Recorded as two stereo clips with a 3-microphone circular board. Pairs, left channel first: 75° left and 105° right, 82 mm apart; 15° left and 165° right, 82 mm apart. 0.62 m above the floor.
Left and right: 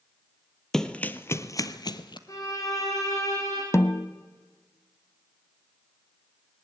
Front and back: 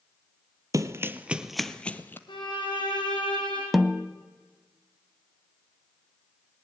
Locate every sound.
0.7 s running footsteps: 160° left, 1.0 m; by 2.2 s 80° left, 1.2 m
2.3 s a violin: 30° left, 6 m
3.7 s a snare drum: 105° left, 0.5 m